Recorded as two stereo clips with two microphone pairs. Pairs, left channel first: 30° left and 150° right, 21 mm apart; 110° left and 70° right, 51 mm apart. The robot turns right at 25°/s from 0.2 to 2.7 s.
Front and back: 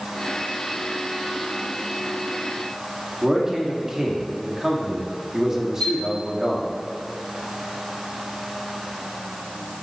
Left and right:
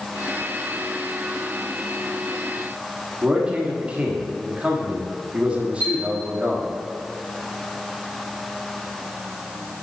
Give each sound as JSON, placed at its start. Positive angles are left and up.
{"t": 3.2, "sound": "a man speaking", "azimuth_deg": -110, "distance_m": 1.4}
{"t": 5.8, "sound": "a chime", "azimuth_deg": 60, "distance_m": 3.0}